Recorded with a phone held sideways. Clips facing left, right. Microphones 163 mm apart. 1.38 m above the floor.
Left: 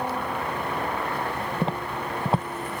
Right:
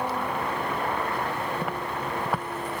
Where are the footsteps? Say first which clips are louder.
Left 2 dB; 25° left (ahead or behind).